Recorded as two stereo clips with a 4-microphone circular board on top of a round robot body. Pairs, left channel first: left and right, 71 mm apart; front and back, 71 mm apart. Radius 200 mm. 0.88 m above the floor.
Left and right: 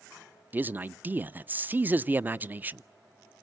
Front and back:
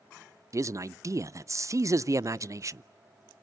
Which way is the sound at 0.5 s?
150° right.